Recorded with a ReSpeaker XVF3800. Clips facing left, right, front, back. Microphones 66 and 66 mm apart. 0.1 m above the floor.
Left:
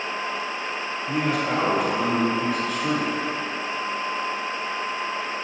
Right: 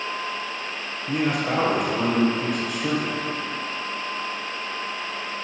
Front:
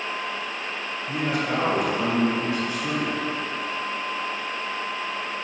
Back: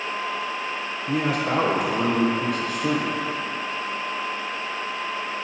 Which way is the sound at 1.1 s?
175° right.